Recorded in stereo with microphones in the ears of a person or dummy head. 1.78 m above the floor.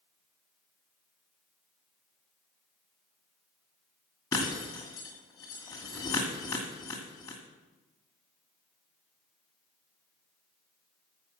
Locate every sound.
4.3 s breaking glass: 15° left (ahead or behind), 2 m